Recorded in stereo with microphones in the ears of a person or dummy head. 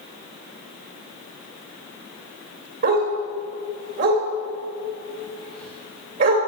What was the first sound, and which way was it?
A dog barking, 45° right (ahead or behind).